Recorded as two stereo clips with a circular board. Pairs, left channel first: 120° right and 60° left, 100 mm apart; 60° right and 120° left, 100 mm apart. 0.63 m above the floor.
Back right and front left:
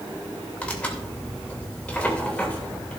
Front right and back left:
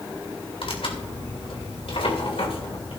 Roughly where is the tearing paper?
Ahead right.